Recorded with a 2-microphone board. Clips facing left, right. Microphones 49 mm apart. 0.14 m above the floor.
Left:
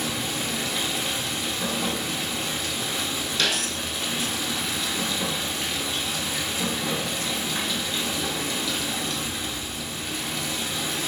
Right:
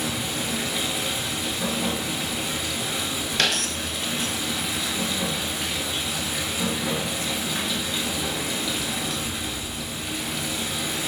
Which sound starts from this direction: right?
A dropped coin, at 3.4 s.